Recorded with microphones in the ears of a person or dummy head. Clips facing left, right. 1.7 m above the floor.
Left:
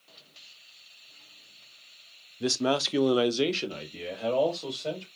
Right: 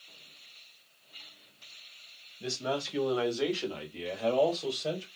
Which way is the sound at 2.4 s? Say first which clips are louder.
Left 7 dB; 65° left (ahead or behind).